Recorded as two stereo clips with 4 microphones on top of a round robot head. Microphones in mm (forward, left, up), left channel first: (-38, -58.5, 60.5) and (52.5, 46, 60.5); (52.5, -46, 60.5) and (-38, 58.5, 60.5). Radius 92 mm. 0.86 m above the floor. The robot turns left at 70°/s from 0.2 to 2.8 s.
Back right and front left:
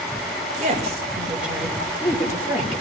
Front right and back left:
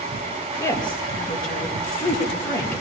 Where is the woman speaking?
25° left, 5 m; by 2.8 s 130° right, 5 m.